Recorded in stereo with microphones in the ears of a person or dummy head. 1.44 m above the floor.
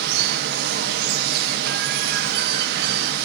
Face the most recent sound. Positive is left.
turn(degrees=-60)  # may be behind; listen again after turning